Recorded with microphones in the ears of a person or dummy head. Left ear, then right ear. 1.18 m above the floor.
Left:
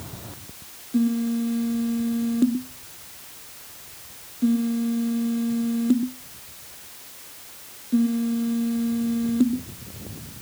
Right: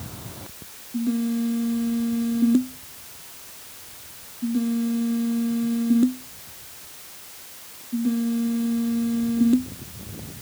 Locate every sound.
Only background noise.